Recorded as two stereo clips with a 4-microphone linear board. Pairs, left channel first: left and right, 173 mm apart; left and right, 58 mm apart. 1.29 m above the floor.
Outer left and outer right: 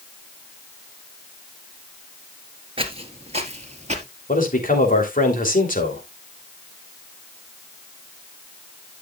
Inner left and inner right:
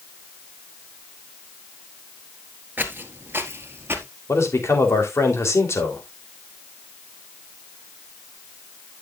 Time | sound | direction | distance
2.8 | footsteps | 35° right (ahead or behind) | 1.4 m
4.3 | a man speaking | 55° left (ahead or behind) | 3.5 m